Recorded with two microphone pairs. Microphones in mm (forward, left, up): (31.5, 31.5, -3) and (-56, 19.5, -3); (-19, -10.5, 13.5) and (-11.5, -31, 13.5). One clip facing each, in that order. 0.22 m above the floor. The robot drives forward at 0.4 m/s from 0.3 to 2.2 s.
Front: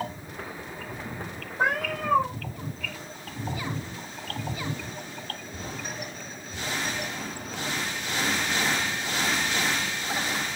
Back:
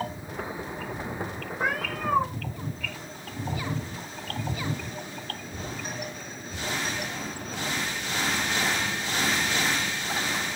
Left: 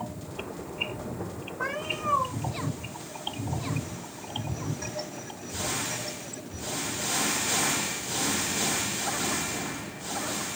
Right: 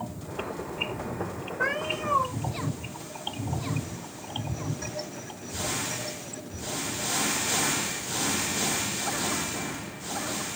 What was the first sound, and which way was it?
A cat meowing, 20° right.